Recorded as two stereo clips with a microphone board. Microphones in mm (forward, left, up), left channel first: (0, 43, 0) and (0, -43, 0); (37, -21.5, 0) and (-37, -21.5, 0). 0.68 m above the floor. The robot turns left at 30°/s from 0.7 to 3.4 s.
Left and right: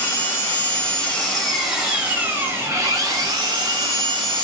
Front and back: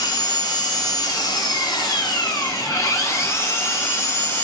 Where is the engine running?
25° left, 1.1 m; by 4.5 s 60° right, 1.1 m.